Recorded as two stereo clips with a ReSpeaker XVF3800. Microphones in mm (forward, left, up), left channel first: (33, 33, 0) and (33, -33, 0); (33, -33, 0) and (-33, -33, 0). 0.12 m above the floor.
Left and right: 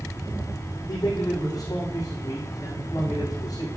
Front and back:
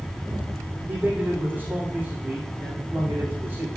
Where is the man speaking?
120° left, 7.5 m.